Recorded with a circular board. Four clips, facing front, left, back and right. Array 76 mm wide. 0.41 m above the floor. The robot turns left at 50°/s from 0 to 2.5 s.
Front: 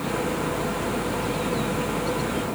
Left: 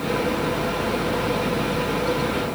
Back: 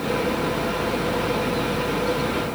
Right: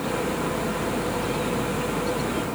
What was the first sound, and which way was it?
Only background noise.